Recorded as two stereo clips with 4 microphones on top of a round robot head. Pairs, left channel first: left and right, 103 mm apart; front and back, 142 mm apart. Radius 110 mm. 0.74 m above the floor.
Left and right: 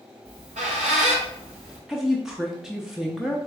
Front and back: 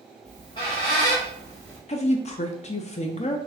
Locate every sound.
0.2 s a squeak: 65° right, 1.1 m
1.9 s a woman speaking: 5° right, 0.5 m